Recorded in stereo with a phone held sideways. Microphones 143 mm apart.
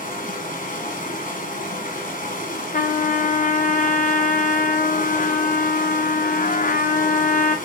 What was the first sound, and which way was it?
Running water, 75° left (ahead or behind).